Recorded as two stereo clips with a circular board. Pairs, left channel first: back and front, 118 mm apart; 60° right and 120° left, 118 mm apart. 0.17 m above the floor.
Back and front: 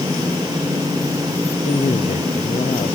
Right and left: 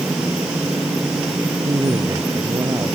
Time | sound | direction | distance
1.6 | a man speaking | straight behind | ?